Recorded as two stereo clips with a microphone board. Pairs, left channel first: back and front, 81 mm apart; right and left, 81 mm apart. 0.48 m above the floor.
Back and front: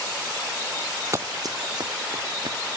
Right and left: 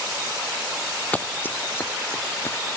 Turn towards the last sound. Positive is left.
turn(degrees=-30)